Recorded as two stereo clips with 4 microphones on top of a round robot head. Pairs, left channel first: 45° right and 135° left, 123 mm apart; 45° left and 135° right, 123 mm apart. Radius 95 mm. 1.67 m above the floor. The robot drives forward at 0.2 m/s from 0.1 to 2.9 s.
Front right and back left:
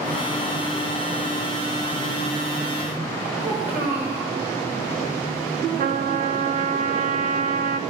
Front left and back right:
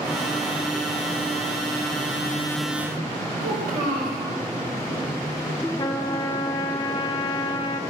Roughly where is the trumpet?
Left.